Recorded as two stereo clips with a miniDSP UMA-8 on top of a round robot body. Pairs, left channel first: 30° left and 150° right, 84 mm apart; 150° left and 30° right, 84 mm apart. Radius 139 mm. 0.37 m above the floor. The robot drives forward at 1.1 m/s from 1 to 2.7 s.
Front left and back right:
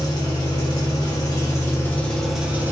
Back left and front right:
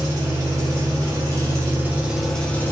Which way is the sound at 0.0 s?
Straight ahead.